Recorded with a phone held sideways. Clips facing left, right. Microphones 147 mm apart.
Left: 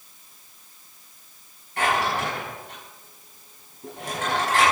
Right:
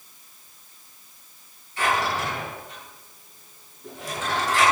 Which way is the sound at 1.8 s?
60° left (ahead or behind).